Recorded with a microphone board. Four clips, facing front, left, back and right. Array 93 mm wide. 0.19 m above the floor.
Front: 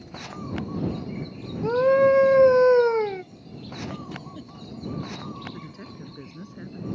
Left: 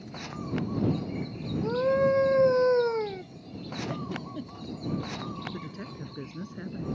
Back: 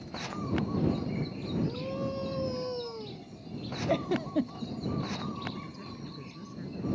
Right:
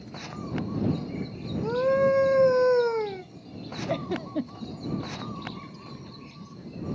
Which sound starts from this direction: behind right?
A giggle, at 3.9 s.